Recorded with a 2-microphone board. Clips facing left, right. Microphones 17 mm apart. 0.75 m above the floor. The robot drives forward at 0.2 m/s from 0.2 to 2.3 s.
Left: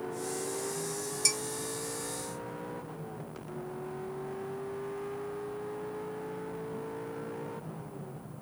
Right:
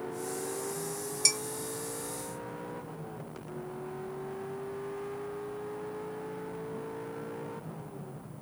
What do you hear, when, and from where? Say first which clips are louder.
1.2 s dishes clattering: right 2 dB; 10° right (ahead or behind), 1.4 m